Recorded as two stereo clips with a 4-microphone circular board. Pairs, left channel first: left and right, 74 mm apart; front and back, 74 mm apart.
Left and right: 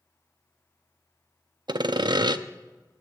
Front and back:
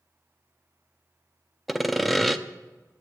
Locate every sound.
1.7 s sawing: 90° right, 0.5 m